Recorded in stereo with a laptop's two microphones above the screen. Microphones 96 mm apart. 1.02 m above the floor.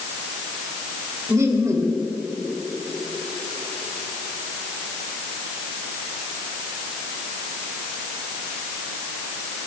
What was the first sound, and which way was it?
Laughter, 35° right (ahead or behind).